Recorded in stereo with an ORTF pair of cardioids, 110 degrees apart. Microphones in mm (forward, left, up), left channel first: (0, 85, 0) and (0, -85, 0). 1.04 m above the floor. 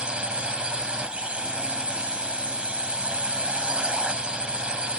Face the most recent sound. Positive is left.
turn(degrees=-5)